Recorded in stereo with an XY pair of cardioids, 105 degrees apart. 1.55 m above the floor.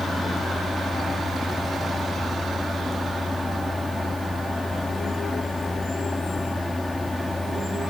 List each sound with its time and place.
0.0 s a fan: 10° left